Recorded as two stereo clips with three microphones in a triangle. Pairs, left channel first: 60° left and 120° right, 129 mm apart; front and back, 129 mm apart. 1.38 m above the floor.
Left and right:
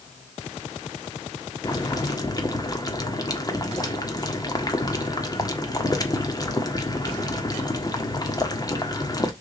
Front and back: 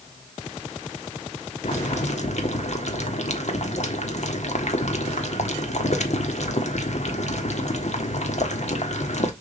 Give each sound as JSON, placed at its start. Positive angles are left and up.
{"t": 1.6, "sound": "boiling", "azimuth_deg": 0, "distance_m": 1.4}